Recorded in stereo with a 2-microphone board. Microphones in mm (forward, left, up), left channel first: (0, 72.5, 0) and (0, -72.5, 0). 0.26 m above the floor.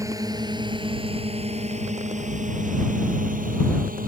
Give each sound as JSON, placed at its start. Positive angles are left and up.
{"t": 0.0, "sound": "a drone", "side_deg": -25}